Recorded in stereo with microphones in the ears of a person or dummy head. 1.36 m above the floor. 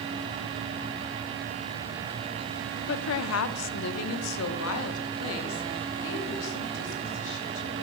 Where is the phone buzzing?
I don't hear a phone buzzing.